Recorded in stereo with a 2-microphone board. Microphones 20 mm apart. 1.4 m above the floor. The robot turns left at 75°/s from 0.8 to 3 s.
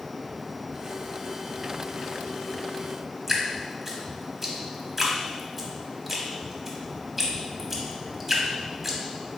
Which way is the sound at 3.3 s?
10° right (ahead or behind).